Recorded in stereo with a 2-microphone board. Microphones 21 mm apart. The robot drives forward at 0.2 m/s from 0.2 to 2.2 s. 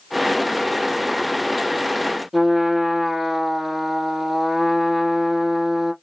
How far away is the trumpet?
About 3 m.